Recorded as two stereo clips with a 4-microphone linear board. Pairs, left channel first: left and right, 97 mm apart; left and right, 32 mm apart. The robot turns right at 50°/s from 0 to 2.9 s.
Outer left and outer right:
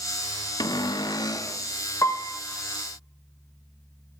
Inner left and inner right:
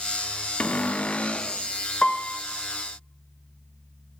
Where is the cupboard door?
85° left, 0.5 m; by 1.6 s 135° left, 0.5 m.